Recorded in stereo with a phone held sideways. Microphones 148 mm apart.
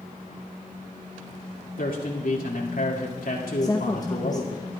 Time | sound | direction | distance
1.8 | a man speaking | 75° left (ahead or behind) | 2 m
3.6 | a woman speaking | 25° left (ahead or behind) | 0.8 m